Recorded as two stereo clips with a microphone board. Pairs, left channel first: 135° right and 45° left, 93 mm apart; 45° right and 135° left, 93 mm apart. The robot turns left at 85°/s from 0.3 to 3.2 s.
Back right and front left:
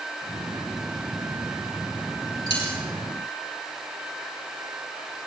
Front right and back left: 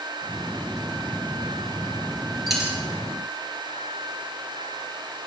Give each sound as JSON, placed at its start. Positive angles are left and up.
{"t": 2.5, "sound": "a dropped coin", "azimuth_deg": -135, "distance_m": 4.0}